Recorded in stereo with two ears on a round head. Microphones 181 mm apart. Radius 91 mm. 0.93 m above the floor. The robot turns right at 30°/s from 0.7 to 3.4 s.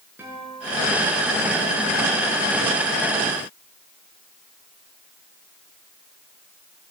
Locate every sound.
0.2 s a guitar: 10° right (ahead or behind), 6 m; by 1.4 s 10° left (ahead or behind), 6 m